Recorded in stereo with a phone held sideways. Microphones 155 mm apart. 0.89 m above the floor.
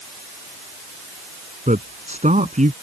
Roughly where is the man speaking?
Right.